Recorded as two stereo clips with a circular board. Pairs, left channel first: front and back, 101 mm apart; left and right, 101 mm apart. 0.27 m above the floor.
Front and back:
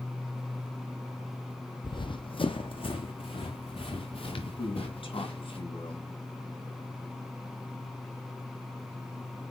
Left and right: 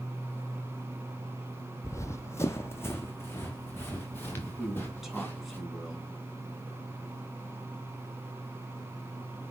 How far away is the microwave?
No microwave in this recording.